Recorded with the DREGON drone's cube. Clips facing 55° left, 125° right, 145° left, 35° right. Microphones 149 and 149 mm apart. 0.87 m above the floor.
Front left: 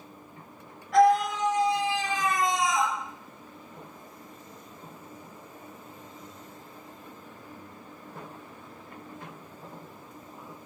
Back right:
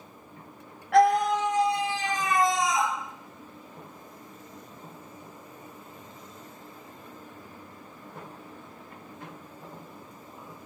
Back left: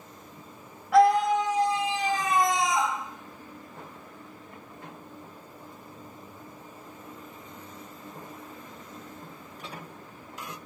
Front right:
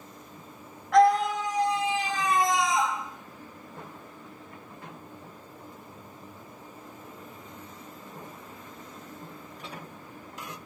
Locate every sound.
0.9 s a scream: 130° right, 0.7 m; by 2.9 s 175° right, 1.4 m